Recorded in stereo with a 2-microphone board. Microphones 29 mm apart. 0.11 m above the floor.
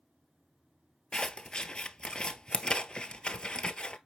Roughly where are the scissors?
Left.